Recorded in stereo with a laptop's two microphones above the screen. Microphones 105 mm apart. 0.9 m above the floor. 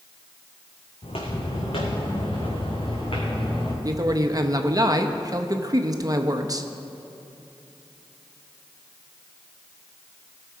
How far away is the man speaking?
About 0.8 m.